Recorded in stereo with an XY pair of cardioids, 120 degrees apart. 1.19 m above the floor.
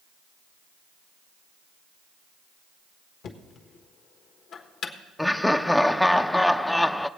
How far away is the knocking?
About 1.4 m.